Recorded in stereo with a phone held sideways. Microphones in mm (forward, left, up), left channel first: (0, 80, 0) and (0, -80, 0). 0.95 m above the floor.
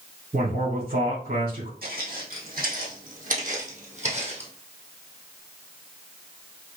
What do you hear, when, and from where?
0.3 s a man speaking: 70° right (ahead or behind), 3 m
1.8 s footsteps: 70° right (ahead or behind), 2.5 m; by 4.5 s 40° right (ahead or behind), 1.7 m